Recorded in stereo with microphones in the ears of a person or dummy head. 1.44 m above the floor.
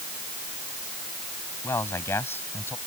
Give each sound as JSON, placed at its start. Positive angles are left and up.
{"t": 1.6, "sound": "a man speaking", "side_deg": 15}